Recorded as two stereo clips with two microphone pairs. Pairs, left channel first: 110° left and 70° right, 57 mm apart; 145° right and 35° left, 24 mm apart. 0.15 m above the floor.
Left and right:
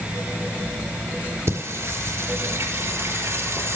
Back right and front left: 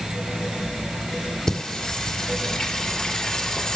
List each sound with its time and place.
1.5 s singing: 80° right, 2 m